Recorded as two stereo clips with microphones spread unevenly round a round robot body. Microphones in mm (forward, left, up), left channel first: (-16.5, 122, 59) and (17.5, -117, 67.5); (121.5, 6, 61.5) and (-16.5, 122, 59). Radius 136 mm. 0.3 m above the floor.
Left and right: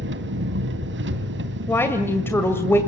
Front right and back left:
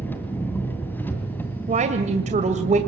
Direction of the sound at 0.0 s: 120° right.